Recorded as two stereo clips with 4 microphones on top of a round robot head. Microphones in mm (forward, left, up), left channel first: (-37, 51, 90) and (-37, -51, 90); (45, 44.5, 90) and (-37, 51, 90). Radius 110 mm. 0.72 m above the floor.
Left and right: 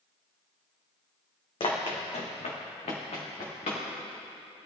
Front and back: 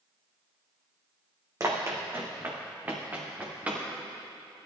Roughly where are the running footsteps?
Behind left.